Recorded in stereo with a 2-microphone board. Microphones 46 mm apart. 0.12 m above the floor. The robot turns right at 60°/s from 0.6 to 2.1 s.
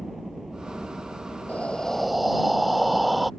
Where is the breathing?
145° left; by 3.3 s straight behind.